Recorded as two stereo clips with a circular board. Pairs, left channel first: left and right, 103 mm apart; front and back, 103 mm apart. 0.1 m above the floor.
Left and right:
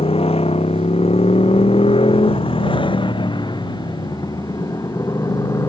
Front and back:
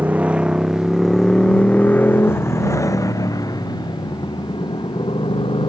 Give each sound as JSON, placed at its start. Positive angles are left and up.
{"t": 0.0, "sound": "a motorcycle", "azimuth_deg": 105}